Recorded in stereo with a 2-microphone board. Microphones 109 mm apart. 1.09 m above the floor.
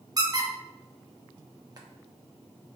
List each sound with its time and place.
0.2 s a squeak: 35° right (ahead or behind), 0.8 m